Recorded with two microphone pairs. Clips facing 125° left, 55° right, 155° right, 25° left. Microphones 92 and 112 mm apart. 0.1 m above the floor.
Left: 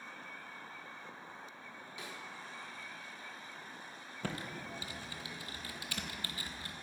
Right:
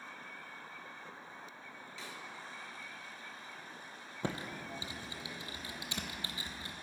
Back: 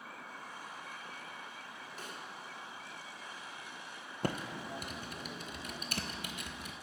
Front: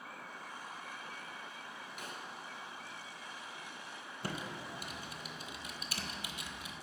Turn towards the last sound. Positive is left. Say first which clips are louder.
# right 2 dB, back 5 dB
turn(degrees=-120)